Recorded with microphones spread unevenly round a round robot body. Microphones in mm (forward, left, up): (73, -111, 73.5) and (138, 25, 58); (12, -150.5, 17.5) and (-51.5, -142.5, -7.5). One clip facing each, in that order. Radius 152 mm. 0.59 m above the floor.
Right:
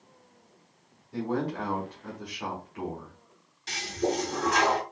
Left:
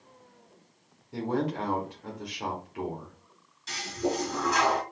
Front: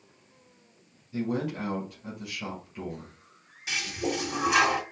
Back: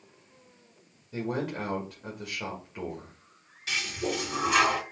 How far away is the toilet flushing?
About 2 m.